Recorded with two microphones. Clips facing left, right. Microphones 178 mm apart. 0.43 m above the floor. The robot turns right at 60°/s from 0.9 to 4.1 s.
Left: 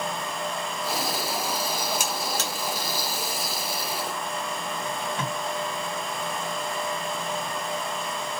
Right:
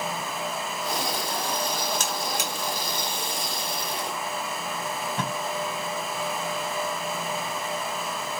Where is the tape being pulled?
45° right (ahead or behind), 1.7 m.